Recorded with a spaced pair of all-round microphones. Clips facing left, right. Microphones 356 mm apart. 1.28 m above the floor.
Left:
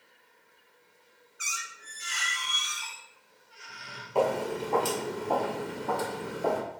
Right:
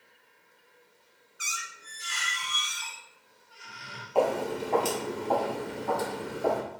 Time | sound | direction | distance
1.4 | a squeak | 50° right (ahead or behind) | 0.7 m
4.2 | footsteps | 30° left (ahead or behind) | 1.5 m